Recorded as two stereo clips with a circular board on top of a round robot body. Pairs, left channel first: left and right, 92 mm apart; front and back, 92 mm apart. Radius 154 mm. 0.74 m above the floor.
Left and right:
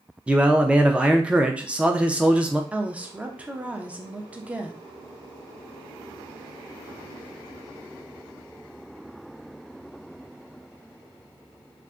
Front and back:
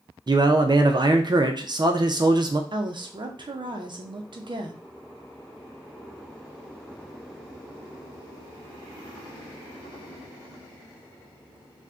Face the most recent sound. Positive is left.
turn(degrees=-165)